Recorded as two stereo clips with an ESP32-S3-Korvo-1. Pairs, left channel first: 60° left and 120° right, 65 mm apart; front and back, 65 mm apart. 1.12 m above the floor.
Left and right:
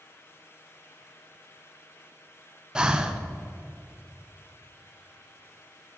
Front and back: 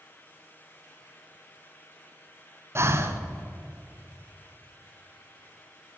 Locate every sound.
2.8 s breathing: 170° left, 0.7 m